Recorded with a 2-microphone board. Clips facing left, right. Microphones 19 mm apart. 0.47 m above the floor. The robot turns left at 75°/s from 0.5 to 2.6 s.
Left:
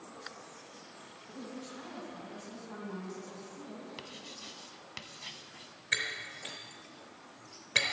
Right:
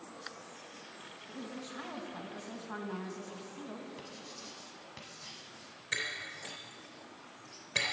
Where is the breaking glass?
30° left (ahead or behind), 3 m.